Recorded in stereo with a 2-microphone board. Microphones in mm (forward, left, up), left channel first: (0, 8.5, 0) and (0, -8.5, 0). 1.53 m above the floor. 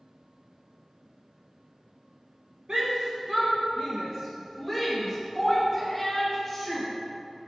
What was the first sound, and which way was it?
A shout, 70° right (ahead or behind).